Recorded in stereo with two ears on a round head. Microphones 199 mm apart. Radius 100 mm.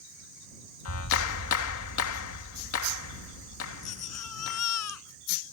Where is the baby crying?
80° left.